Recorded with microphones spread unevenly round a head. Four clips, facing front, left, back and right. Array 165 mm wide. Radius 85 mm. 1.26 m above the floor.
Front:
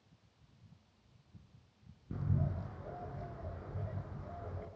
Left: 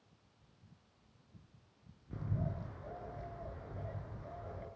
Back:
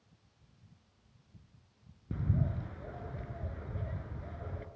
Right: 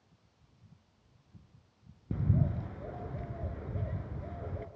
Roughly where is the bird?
Right.